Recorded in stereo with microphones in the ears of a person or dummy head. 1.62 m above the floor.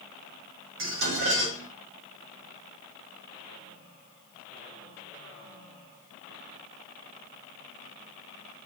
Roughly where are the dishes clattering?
Right.